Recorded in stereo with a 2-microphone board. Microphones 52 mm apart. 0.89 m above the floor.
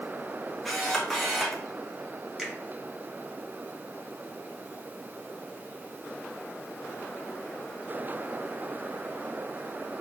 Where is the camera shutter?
5° left (ahead or behind), 1.2 m.